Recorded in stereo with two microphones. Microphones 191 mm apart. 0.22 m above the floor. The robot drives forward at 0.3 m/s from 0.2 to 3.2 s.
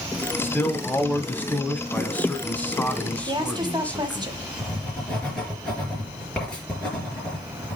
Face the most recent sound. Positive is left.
turn(degrees=5)  # may be behind; listen again after turning